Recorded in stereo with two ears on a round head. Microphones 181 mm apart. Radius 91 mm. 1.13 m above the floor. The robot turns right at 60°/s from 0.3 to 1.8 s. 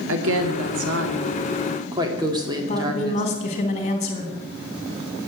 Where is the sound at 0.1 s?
110° right, 2.5 m; by 3.2 s 20° right, 2.5 m.